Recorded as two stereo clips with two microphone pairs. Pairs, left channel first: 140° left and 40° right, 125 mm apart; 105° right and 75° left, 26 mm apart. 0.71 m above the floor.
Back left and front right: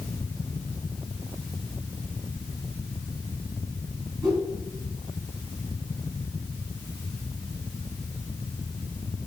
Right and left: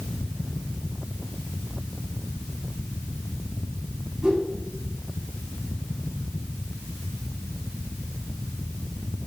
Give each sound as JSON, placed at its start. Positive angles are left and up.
{"t": 4.2, "sound": "a whoosh", "azimuth_deg": 15, "distance_m": 5.0}